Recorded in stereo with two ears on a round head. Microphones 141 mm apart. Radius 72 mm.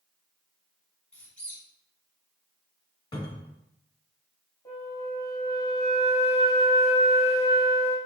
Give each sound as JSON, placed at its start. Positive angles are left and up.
{"t": 1.1, "sound": "a squeak", "side_deg": 5, "distance_m": 1.0}
{"t": 3.1, "sound": "a cupboard door", "side_deg": 25, "distance_m": 1.2}
{"t": 4.7, "sound": "a flute", "side_deg": 20, "distance_m": 1.2}